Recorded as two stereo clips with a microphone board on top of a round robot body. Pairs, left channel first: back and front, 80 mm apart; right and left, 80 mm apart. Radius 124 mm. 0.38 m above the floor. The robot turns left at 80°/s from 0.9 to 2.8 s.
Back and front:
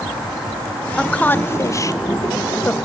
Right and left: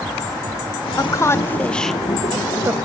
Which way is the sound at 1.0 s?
100° right.